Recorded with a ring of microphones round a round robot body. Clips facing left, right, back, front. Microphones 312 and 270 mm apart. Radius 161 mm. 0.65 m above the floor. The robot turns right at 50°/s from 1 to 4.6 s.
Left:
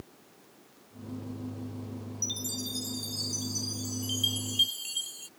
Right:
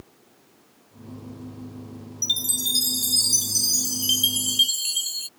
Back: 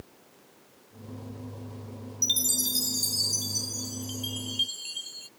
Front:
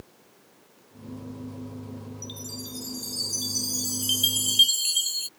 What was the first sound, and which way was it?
A chime, 145° right.